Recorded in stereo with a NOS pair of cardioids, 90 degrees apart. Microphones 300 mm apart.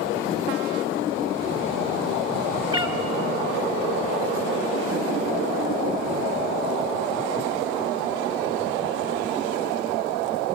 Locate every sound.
2.7 s a cat meowing: 20° right, 2.5 m